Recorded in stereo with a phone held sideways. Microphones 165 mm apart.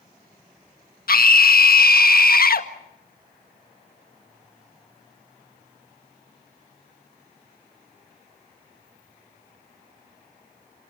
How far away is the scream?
About 1.7 m.